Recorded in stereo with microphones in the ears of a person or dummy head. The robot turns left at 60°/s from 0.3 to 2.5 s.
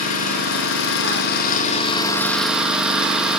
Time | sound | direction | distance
0.0 | an engine running | 125° left | 1.1 m